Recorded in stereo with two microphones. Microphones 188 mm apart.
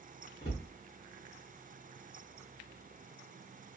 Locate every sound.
0.4 s a cupboard door: 35° left (ahead or behind), 2 m